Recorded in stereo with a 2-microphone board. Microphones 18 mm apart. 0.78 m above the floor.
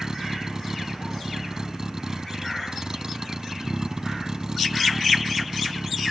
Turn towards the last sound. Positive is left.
turn(degrees=-40)  # may be behind; listen again after turning